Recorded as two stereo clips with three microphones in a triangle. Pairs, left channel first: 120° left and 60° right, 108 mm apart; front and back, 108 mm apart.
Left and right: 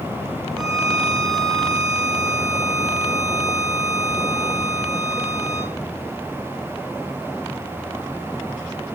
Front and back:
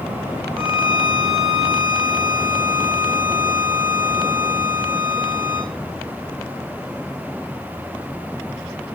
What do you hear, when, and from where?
0.6 s a violin: 105° left, 4 m